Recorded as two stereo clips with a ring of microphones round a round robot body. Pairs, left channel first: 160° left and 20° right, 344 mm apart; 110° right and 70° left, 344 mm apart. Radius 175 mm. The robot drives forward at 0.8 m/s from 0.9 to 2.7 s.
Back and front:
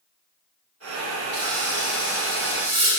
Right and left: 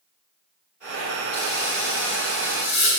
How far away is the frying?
About 3.5 m.